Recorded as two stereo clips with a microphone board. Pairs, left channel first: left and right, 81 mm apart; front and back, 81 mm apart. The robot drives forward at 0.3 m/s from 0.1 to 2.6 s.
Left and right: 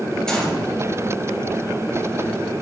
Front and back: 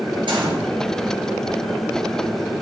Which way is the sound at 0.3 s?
170° left.